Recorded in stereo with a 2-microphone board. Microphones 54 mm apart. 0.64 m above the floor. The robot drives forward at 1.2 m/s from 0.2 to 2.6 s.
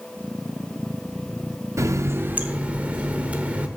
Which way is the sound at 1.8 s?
65° right (ahead or behind).